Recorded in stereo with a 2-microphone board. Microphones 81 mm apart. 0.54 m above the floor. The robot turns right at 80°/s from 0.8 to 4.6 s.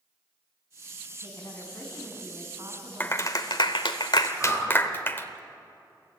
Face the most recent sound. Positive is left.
turn(degrees=0)  # may be behind; listen again after turning